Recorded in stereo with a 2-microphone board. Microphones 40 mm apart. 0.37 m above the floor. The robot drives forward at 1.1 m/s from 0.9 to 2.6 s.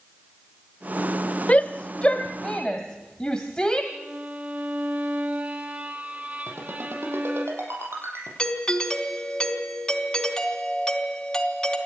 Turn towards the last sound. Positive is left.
turn(degrees=20)  # may be behind; listen again after turning